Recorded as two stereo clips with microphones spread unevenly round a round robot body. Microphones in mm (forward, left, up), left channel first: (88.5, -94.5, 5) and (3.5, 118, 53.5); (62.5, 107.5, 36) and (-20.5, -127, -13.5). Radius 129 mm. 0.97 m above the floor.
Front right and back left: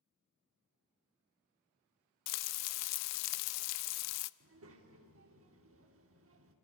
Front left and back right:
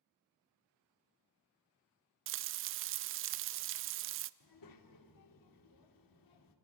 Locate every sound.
2.3 s frying: 70° right, 0.5 m
4.4 s a child speaking: 85° left, 2 m